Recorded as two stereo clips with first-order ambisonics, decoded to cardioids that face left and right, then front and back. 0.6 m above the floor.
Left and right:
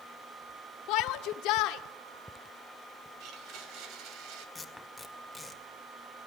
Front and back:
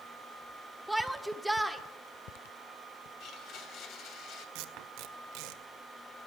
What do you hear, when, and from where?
0.9 s a shout: 90° left, 1.4 m
3.2 s a blender: 50° right, 2.5 m
4.5 s tape being pulled: 175° left, 1.8 m